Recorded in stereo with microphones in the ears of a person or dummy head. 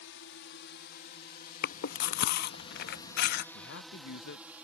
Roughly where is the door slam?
I don't hear a door slam.